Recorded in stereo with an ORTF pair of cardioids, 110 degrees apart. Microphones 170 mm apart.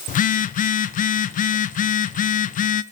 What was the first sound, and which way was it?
A phone buzzing, 50° left.